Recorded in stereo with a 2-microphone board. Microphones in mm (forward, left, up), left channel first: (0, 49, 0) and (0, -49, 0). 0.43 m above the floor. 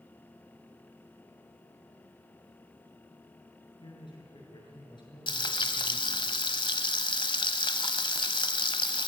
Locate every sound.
3.8 s a man speaking: 50° left (ahead or behind), 6.5 m
5.3 s frying: 50° left (ahead or behind), 1.1 m